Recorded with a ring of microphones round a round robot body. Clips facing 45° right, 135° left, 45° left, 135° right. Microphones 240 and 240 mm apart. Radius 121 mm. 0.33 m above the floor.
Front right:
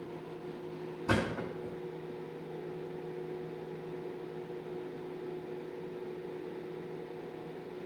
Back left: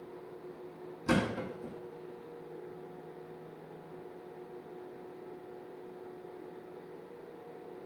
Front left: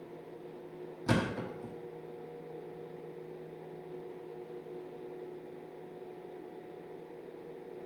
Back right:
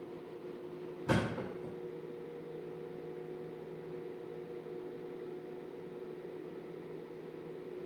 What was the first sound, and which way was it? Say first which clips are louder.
A thud: back left 2 dB, front left 2 dB; 75° left.